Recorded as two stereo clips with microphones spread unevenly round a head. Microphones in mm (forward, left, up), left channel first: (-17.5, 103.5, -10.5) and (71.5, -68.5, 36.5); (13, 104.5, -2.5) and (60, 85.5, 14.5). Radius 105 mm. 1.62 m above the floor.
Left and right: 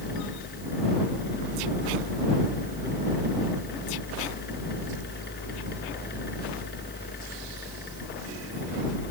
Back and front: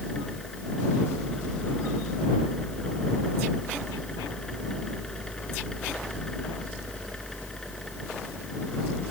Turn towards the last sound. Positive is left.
turn(degrees=80)